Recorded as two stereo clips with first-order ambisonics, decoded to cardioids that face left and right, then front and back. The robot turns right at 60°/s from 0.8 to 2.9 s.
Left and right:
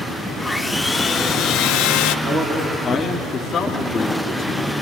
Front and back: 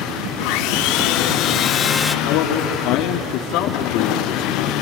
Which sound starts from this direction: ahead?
Sawing, at 0.4 s.